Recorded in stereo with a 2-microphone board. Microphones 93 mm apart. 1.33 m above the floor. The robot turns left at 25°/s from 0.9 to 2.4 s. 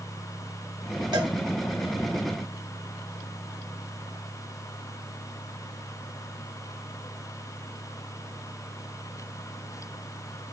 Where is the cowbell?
50° right (ahead or behind), 1.1 m; by 1.3 s 55° right (ahead or behind), 1.1 m.